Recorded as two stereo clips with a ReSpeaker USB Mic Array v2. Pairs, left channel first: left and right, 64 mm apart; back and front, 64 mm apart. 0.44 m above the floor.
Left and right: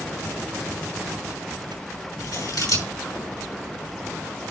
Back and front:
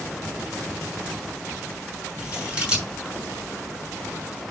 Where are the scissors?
75° left, 6 m.